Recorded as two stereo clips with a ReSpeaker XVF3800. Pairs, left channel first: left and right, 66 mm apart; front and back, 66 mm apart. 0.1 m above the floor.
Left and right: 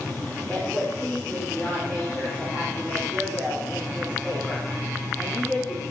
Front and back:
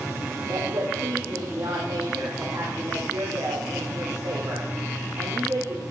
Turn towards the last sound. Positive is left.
turn(degrees=170)